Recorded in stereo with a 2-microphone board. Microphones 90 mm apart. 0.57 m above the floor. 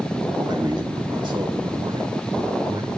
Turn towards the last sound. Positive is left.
turn(degrees=-60)  # may be behind; listen again after turning